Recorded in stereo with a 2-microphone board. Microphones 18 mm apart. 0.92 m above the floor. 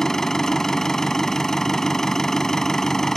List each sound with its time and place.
0.0 s an engine running: 25° left (ahead or behind)